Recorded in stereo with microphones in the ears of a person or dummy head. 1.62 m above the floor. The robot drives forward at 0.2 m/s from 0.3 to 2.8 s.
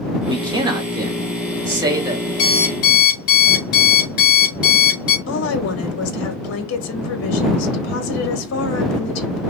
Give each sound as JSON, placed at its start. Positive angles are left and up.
{"t": 0.3, "sound": "a man speaking", "side_deg": -20, "distance_m": 0.9}
{"t": 2.4, "sound": "an alarm clock", "side_deg": 55, "distance_m": 1.6}
{"t": 5.3, "sound": "a woman speaking", "side_deg": 85, "distance_m": 1.4}